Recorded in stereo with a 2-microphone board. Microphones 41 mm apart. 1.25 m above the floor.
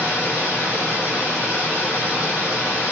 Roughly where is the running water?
Left.